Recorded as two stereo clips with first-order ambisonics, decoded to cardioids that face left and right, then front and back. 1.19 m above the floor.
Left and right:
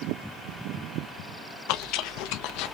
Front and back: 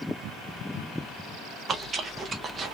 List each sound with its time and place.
1.7 s chewing: 115° left, 0.8 m